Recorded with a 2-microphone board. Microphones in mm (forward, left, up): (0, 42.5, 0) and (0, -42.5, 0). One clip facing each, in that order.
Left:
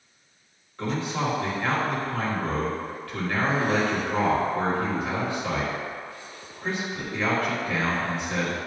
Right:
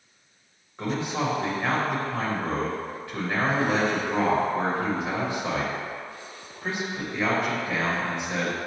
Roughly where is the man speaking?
Centre.